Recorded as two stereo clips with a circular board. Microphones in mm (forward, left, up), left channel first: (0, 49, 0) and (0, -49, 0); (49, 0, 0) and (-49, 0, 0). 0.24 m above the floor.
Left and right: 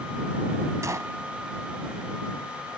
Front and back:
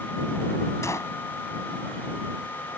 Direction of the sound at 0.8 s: 45° right.